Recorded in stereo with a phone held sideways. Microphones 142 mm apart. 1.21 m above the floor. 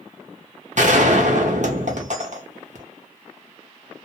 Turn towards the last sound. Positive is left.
turn(degrees=-65)  # may be behind; listen again after turning